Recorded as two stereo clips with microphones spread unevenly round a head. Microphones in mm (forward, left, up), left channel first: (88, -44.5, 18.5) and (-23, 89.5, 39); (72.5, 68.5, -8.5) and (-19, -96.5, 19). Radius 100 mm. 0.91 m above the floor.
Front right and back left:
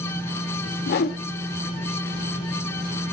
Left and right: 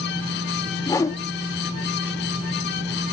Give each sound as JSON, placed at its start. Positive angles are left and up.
{"t": 0.9, "sound": "a whoosh", "azimuth_deg": -15, "distance_m": 0.6}